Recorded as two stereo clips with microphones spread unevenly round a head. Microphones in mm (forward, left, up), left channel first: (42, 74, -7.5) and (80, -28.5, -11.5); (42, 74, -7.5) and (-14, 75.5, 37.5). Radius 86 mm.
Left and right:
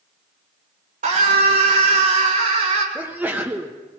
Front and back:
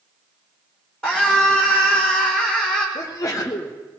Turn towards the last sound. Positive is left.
turn(degrees=5)